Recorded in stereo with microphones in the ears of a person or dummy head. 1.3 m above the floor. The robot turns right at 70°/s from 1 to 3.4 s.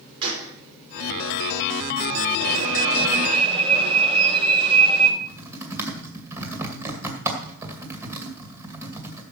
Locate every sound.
0.2 s a gunshot: 30° right (ahead or behind), 4 m
2.4 s an alarm: 105° right, 5 m; by 5.1 s 35° right, 5 m
5.2 s typing on a keyboard: 15° right (ahead or behind), 2.5 m